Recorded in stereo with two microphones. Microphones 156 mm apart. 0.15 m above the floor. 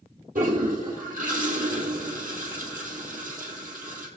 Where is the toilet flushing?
60° right (ahead or behind), 2.5 m.